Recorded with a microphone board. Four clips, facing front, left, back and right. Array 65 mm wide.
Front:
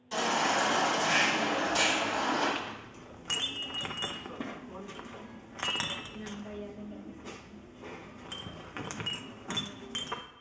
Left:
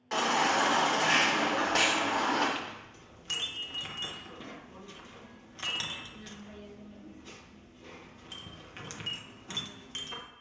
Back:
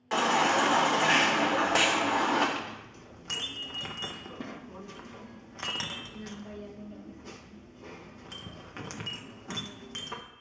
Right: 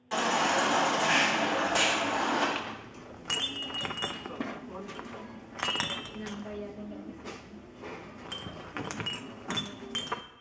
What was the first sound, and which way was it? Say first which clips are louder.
A baby crying: even, back 4 dB; 165° left.